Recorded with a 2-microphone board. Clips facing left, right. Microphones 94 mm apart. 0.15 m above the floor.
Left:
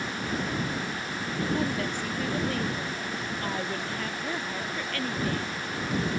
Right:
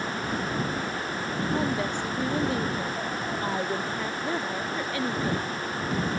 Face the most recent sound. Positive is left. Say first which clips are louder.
# right 2 dB
turn(degrees=-20)  # may be behind; listen again after turning